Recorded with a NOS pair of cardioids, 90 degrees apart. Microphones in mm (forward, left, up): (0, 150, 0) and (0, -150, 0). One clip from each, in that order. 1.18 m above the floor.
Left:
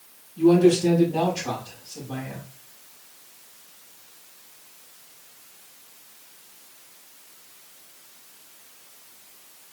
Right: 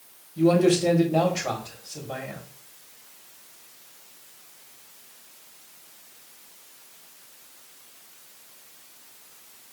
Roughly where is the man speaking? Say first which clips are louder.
Left 2 dB; ahead right.